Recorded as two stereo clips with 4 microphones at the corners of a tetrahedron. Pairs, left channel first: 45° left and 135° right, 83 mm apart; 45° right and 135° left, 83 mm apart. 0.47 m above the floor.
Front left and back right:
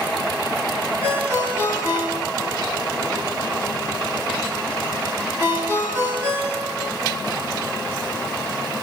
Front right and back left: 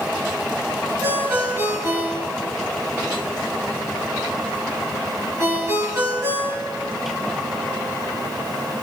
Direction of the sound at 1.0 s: 175° right.